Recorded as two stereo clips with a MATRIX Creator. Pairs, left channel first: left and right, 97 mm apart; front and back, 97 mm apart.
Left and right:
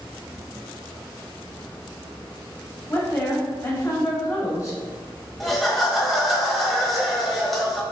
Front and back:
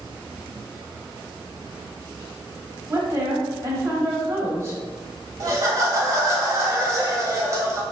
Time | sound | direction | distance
2.9 | a woman speaking | 135° left | 1.5 m
5.4 | laughter | straight behind | 1.0 m